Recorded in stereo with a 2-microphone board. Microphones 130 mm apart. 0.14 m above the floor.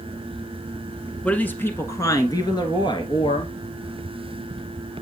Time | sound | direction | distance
1.2 | a woman speaking | 10° left (ahead or behind) | 1.3 m